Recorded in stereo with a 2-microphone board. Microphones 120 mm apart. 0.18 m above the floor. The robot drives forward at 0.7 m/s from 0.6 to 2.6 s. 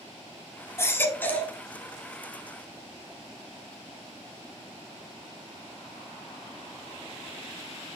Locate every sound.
0.8 s a baby crying: 20° left (ahead or behind), 0.6 m; by 1.5 s 15° left (ahead or behind), 1.0 m